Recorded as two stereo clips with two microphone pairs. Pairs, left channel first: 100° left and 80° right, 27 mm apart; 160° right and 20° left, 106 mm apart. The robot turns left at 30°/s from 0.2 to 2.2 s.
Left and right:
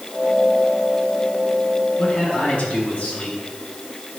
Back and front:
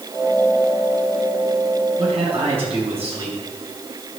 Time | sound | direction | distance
2.0 | a man speaking | 55° left | 5.5 m